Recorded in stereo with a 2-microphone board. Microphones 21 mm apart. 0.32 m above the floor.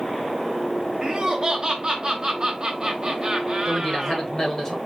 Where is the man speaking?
30° left (ahead or behind), 1.6 m.